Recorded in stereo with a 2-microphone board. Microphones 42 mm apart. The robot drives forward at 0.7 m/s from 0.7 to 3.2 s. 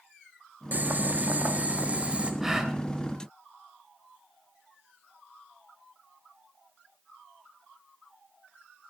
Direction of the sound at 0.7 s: 45° right (ahead or behind).